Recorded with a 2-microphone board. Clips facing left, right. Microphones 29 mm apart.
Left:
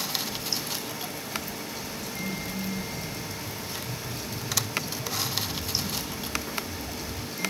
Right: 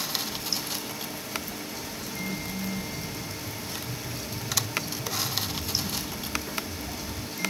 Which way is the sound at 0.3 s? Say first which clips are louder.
Even; 60° left (ahead or behind).